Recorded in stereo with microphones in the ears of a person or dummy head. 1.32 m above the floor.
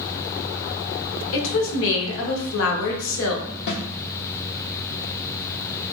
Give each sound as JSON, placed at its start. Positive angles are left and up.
{"t": 1.3, "sound": "a woman speaking", "side_deg": 75, "distance_m": 0.8}
{"t": 3.7, "sound": "a snare drum", "side_deg": 65, "distance_m": 0.7}